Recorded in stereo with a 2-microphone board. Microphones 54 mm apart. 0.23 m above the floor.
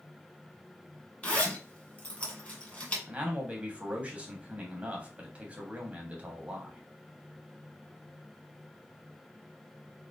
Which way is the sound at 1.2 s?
25° left (ahead or behind).